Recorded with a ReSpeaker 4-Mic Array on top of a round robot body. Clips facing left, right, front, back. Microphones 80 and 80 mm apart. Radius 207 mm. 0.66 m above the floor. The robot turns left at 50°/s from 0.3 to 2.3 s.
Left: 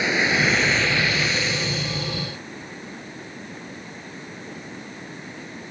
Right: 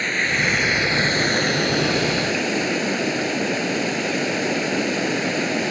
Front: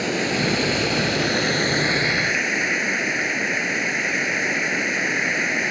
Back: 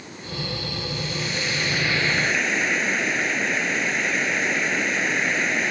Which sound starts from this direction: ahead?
Running water, at 0.0 s.